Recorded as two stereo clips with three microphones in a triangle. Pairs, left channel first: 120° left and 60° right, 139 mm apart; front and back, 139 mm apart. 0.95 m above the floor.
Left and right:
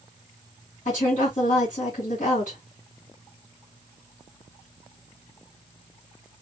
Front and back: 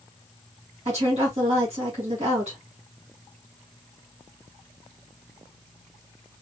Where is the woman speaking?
145° left, 2.5 m.